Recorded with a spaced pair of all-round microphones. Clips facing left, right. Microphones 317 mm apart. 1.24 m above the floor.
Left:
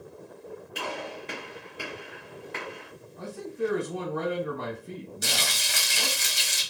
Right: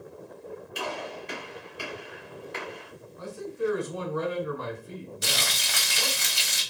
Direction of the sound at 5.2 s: 70° right (ahead or behind).